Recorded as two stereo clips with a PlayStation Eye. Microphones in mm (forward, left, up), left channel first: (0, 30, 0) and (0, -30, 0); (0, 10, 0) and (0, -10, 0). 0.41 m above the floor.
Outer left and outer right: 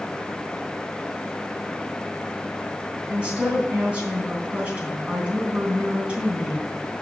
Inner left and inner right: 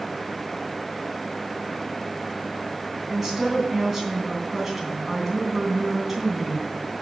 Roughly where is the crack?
I don't hear a crack.